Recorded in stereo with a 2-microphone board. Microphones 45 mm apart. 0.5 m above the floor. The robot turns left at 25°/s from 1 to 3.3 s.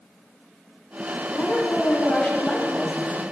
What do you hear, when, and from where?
1.3 s a woman speaking: 65° left, 2.5 m; by 3.2 s 15° left, 2.5 m